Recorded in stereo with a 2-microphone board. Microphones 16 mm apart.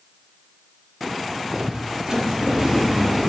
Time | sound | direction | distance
1.4 | footsteps | 40° right (ahead or behind) | 8.5 m